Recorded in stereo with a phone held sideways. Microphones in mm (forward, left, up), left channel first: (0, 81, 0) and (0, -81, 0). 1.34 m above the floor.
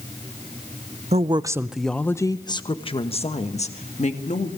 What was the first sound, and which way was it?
A woman speaking, 45° right (ahead or behind).